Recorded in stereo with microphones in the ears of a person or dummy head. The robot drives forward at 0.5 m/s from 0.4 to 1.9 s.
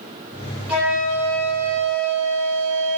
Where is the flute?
5° right (ahead or behind), 0.7 m.